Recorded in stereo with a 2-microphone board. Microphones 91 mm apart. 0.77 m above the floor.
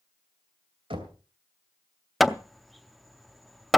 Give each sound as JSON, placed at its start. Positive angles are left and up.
{"t": 0.9, "sound": "knocking", "side_deg": -85, "distance_m": 2.5}
{"t": 2.2, "sound": "hammering", "side_deg": 0, "distance_m": 0.5}